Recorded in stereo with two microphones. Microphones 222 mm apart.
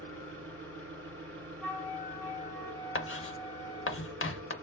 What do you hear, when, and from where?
0.0 s an engine running: 75° right (ahead or behind), 1.1 m
1.6 s a flute: 5° left (ahead or behind), 0.8 m
3.0 s writing: 65° left (ahead or behind), 0.5 m